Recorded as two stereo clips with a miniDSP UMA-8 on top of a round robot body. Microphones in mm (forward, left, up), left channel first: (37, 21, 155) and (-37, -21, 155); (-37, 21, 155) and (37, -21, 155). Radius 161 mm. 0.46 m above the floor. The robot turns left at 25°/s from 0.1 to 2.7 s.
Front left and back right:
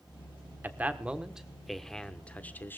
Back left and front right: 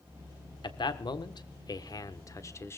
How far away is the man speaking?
About 1.5 m.